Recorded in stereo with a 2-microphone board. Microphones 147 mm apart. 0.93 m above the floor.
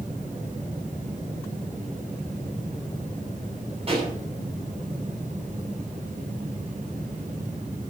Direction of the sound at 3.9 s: 40° right (ahead or behind).